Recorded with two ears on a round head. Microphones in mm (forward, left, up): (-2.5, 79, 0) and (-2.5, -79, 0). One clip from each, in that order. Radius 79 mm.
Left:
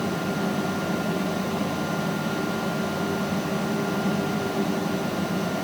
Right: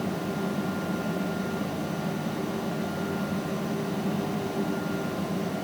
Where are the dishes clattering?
I don't hear dishes clattering.